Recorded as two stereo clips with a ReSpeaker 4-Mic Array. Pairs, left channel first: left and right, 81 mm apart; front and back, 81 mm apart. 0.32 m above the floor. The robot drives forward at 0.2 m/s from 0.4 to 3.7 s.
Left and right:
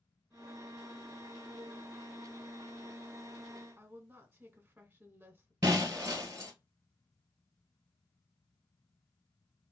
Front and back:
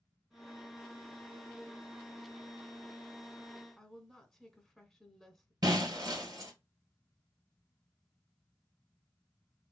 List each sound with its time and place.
3.8 s a woman speaking: 80° right, 1.0 m
5.6 s breaking glass: 140° right, 1.2 m